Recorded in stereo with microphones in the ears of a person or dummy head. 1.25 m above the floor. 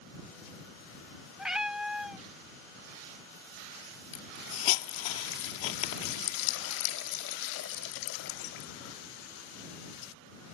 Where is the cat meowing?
5° right (ahead or behind).